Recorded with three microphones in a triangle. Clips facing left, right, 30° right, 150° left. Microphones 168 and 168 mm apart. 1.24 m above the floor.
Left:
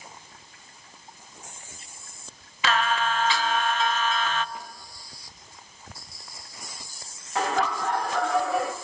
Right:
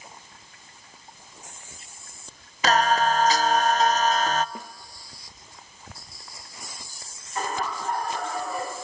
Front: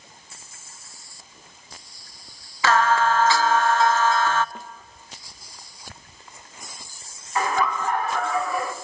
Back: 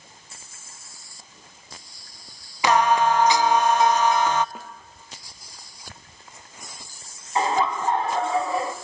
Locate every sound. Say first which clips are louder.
2.6 s singing: right 4 dB, back 1 dB; 135° right, 0.6 m
4.5 s a snare drum: right 1 dB, even; 125° right, 1.0 m
7.3 s laughter: left 4 dB, back 1 dB; 85° left, 2 m